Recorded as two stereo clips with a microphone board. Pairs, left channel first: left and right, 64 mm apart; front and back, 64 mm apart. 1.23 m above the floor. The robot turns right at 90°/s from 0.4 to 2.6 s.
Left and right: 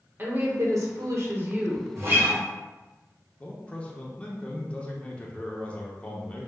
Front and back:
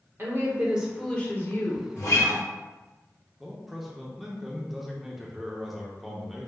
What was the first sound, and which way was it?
A woman speaking, 140° right.